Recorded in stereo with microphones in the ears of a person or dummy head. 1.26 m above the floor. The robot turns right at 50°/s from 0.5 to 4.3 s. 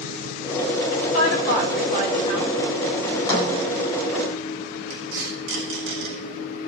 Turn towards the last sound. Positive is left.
turn(degrees=-80)